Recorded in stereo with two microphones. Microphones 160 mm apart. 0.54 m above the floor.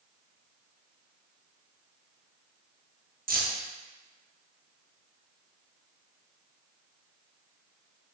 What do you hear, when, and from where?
3.3 s keys jangling: 65° right (ahead or behind), 0.7 m